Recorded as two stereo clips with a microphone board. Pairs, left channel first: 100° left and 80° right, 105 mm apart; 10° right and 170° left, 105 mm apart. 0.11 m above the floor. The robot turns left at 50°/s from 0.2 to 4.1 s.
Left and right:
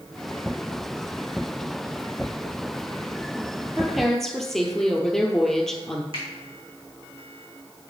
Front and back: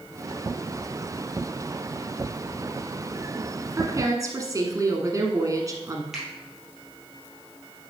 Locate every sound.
3.8 s a woman speaking: 160° right, 1.3 m; by 6.0 s 175° right, 1.3 m
6.1 s a finger snap: 105° right, 3 m